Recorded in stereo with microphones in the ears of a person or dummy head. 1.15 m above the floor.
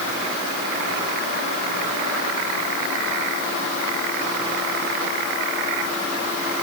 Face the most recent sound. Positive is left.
No sound to turn to.